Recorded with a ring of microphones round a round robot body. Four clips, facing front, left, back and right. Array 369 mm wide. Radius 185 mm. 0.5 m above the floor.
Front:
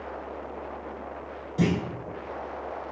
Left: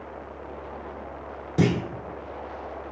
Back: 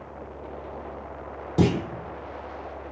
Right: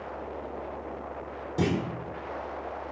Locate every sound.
1.6 s a clunk: 155° left, 1.4 m